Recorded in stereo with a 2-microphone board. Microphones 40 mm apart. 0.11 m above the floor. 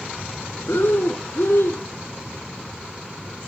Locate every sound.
0.7 s breathing: 70° left (ahead or behind), 1.2 m